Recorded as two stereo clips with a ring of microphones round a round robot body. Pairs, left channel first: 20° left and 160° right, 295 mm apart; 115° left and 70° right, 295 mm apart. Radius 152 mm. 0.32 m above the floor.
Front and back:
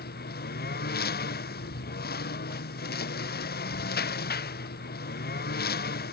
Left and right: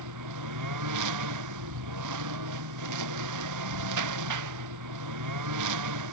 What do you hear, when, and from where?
0.0 s a lawn mower: 40° right